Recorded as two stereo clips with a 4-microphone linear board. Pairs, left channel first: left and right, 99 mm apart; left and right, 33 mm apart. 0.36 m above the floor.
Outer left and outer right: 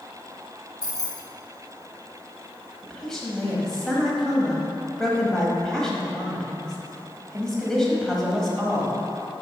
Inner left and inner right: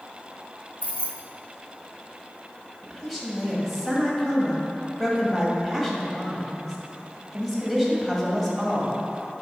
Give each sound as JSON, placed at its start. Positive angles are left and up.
{"t": 0.8, "sound": "keys jangling", "side_deg": 45, "distance_m": 0.8}
{"t": 2.8, "sound": "a woman speaking", "side_deg": 5, "distance_m": 1.6}